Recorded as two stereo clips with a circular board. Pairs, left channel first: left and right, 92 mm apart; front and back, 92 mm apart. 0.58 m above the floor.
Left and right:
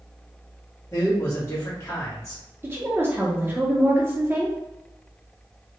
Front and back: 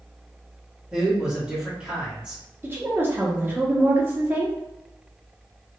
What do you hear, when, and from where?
0.9 s a man speaking: 110° left, 1.2 m
2.6 s a woman speaking: 135° right, 0.8 m